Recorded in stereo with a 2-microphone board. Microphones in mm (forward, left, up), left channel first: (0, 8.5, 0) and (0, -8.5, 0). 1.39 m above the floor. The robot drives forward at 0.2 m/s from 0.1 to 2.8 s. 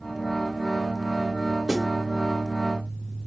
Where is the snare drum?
30° right (ahead or behind), 2 m.